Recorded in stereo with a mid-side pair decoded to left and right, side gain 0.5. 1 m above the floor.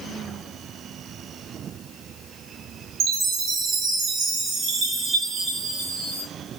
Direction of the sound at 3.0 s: 65° right.